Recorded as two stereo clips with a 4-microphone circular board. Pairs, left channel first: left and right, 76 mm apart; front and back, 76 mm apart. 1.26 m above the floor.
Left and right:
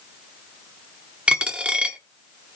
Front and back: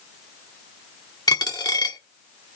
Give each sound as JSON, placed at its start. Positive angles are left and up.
{"t": 1.3, "sound": "a dropped coin", "azimuth_deg": -15, "distance_m": 1.3}